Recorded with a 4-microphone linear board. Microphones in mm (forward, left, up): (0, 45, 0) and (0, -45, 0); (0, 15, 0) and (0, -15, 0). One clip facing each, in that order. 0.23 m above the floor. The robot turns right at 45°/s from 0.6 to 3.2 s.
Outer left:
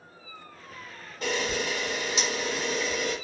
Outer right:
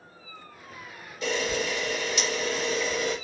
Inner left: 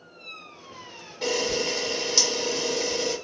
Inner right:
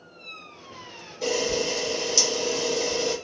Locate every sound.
1.2 s a camera shutter: 105° left, 1.3 m; by 3.1 s 165° right, 1.3 m